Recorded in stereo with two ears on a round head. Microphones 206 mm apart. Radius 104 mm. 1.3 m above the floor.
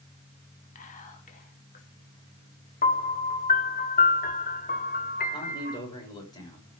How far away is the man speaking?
About 6 m.